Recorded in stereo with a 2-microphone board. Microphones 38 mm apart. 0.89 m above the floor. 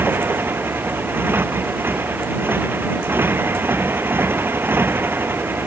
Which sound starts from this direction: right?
A motorcycle, at 0.0 s.